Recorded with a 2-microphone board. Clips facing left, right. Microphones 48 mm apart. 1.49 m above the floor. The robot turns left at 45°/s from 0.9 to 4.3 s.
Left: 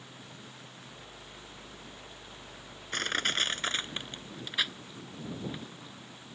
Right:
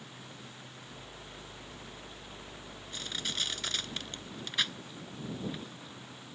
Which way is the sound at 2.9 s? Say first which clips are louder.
Left 8 dB; 70° left (ahead or behind).